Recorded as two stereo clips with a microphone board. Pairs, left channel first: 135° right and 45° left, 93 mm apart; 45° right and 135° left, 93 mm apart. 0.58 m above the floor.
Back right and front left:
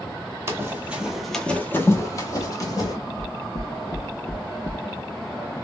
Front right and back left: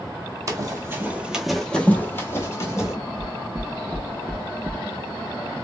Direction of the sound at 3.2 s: 165° right.